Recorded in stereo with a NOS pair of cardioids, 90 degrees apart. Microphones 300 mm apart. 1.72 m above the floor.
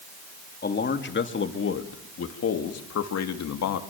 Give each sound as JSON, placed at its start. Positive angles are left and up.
{"t": 0.6, "sound": "a man speaking", "azimuth_deg": 35, "distance_m": 3.5}